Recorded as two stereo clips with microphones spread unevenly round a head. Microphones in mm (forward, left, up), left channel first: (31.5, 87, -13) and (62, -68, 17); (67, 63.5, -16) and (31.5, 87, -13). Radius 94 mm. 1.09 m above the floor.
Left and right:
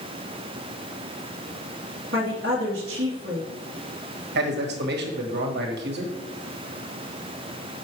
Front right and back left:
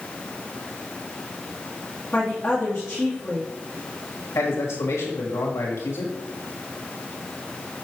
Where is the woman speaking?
120° right, 2 m.